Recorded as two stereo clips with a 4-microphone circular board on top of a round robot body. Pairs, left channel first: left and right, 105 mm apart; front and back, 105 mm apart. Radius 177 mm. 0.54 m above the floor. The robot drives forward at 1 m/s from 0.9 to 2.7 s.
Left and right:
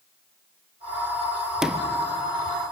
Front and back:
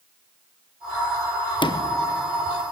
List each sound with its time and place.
1.6 s a sliding door: 5° right, 1.2 m; by 2.0 s 15° right, 1.0 m